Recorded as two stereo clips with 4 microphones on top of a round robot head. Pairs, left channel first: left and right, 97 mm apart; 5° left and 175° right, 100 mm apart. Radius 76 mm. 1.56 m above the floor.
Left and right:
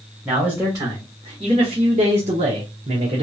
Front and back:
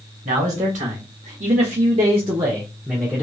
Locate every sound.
0.2 s a man speaking: 170° right, 1.3 m; by 3.2 s 80° right, 1.0 m